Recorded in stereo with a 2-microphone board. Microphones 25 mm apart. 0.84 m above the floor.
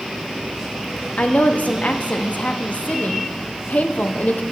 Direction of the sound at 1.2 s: 70° left (ahead or behind).